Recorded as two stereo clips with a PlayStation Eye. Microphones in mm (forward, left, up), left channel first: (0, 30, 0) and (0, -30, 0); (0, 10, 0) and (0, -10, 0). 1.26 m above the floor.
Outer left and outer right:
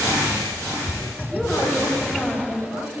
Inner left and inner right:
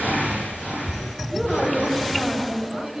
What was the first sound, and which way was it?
A woman speaking, 15° left (ahead or behind).